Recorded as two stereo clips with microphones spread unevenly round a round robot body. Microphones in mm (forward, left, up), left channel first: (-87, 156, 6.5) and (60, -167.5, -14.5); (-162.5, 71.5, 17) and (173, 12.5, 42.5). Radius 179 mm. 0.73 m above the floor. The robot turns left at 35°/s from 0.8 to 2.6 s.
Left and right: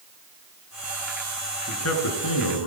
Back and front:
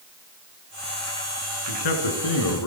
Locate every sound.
1.7 s a man speaking: 170° left, 8.5 m; by 2.7 s 140° left, 8.5 m